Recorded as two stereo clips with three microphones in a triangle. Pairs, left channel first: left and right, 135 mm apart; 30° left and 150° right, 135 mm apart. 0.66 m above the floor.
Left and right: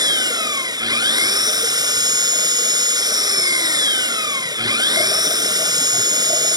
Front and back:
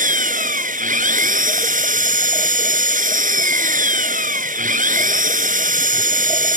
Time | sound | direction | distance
0.0 | an engine running | 150° right | ?